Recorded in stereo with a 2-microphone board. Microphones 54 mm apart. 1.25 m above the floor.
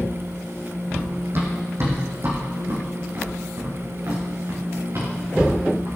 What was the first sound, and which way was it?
Running footsteps, 35° right (ahead or behind).